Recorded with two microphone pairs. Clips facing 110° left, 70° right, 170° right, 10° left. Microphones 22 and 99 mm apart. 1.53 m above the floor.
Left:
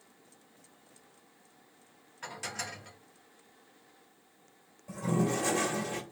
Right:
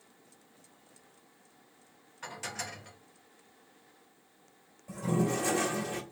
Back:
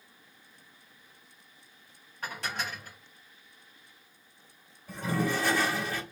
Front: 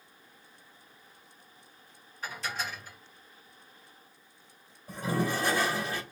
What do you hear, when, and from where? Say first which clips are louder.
2.2 s dishes clattering: even, even; 165° right, 1.2 m
4.9 s a toilet flushing: even, even; 50° left, 1.2 m